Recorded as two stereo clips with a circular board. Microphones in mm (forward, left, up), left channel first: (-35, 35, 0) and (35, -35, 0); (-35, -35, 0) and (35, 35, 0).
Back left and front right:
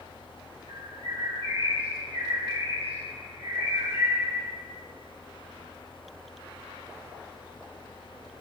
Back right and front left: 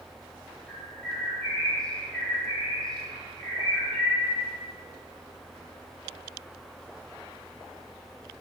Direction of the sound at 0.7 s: 55° right.